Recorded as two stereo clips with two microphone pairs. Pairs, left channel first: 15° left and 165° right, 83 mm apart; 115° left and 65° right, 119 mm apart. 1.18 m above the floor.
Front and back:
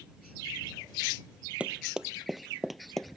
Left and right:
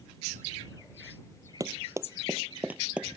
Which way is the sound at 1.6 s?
100° right.